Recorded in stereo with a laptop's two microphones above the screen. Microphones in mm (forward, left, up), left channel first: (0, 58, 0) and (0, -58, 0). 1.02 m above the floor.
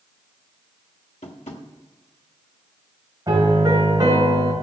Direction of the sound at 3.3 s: 30° right (ahead or behind).